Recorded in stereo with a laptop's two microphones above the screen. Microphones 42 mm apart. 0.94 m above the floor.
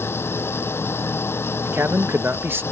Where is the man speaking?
65° right (ahead or behind).